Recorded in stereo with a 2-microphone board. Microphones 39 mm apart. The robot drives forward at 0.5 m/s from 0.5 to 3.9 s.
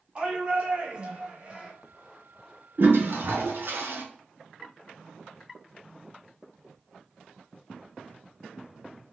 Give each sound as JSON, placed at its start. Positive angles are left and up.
{"t": 0.1, "sound": "a shout", "side_deg": -30, "distance_m": 1.1}
{"t": 2.8, "sound": "a toilet flushing", "side_deg": -65, "distance_m": 1.1}